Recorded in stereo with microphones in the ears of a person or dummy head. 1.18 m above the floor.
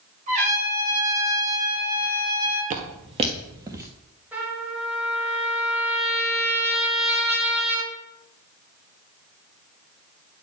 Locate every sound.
0.3 s a trumpet: 40° right (ahead or behind), 4 m
2.7 s footsteps: 45° right (ahead or behind), 1.6 m; by 3.9 s 15° right (ahead or behind), 1.4 m
4.3 s a trumpet: 10° right (ahead or behind), 3 m